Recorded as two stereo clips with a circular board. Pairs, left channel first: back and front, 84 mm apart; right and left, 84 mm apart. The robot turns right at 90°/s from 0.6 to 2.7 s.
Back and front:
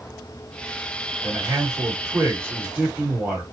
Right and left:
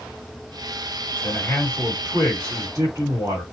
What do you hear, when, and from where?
1.2 s a man speaking: 65° right, 2.0 m; by 3.4 s 65° left, 2.0 m